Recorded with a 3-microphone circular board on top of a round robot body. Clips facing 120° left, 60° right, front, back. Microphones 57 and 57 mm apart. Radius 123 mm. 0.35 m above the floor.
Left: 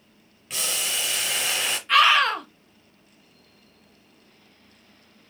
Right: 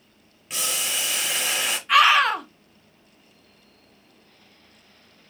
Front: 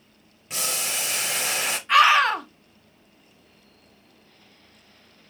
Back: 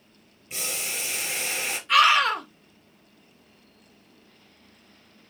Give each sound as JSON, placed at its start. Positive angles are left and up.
{"t": 0.5, "sound": "boiling", "azimuth_deg": 25, "distance_m": 1.1}
{"t": 1.9, "sound": "a scream", "azimuth_deg": 15, "distance_m": 1.7}